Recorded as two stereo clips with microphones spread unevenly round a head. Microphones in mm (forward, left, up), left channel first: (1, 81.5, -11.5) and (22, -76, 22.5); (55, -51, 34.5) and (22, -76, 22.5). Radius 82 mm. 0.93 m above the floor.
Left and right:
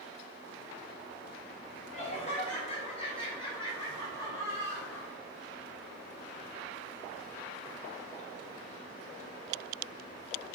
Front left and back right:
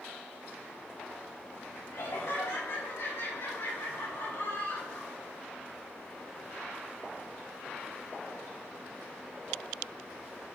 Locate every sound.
1.9 s laughter: 50° left, 4 m; by 5.1 s 20° left, 3 m